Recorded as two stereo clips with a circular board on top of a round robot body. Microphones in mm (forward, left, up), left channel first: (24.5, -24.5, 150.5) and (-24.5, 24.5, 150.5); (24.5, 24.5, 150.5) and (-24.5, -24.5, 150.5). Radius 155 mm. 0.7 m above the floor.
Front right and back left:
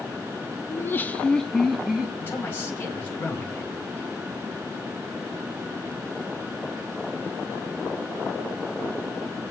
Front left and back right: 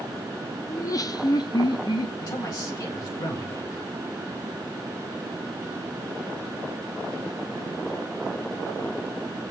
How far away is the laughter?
About 1.2 m.